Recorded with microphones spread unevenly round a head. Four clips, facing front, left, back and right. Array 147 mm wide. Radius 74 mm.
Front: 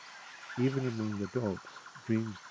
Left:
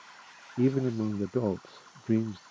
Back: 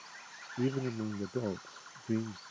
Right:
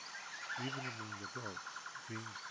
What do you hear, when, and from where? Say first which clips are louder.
0.6 s a man speaking: left 20 dB, front 2 dB; 85° left